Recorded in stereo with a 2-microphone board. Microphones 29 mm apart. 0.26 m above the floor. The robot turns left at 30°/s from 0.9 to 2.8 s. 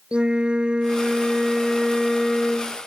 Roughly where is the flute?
Behind right.